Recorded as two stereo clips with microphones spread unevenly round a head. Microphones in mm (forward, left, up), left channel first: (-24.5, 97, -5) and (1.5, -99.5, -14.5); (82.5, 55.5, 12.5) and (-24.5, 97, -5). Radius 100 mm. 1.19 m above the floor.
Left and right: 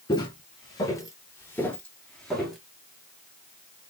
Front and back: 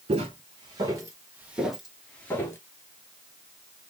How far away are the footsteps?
About 1.4 m.